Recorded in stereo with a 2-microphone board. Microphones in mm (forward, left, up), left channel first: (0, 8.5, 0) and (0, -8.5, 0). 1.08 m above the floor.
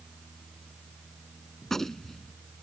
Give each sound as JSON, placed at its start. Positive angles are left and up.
{"t": 1.6, "sound": "a gunshot", "side_deg": 25}